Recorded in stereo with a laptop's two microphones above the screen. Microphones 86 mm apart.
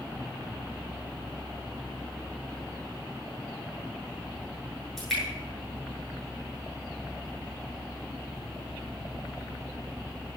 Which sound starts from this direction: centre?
Dripping, at 5.0 s.